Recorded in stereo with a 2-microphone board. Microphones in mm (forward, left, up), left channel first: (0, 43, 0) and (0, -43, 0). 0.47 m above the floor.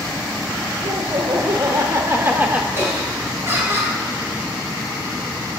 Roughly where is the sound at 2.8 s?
Right.